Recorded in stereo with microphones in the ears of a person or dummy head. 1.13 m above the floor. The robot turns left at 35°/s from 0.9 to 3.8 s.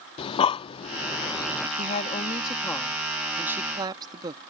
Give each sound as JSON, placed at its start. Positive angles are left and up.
{"t": 0.2, "sound": "breathing", "side_deg": 35}
{"t": 1.8, "sound": "a woman speaking", "azimuth_deg": 50}